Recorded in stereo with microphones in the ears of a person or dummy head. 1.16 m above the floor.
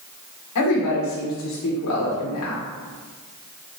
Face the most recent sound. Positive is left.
turn(degrees=75)  # may be behind; listen again after turning